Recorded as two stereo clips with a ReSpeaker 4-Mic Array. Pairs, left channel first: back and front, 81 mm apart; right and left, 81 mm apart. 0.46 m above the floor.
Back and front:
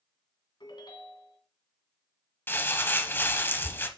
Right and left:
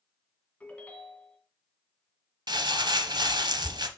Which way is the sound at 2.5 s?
115° left.